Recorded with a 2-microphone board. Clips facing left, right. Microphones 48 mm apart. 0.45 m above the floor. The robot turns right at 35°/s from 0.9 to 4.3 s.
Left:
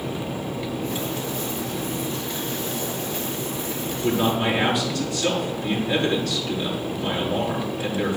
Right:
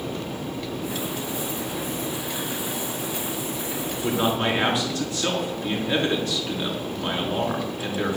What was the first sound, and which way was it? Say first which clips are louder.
A man speaking: left 2 dB; 20° right (ahead or behind).